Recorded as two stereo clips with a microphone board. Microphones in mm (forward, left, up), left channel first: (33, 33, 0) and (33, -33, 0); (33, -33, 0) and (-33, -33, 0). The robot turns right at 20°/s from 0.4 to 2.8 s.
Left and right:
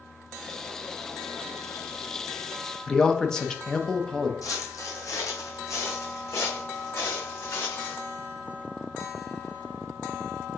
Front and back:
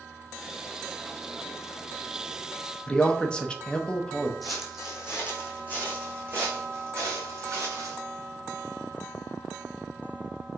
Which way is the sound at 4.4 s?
90° left.